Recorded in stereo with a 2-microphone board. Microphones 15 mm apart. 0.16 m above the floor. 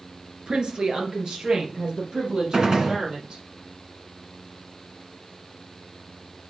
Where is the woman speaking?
55° right (ahead or behind), 1.7 m; by 3.4 s 60° right (ahead or behind), 5 m.